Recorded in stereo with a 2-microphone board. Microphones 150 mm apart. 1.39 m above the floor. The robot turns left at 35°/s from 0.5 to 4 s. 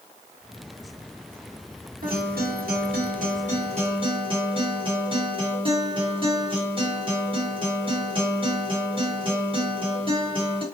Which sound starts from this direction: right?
A guitar, at 2.0 s.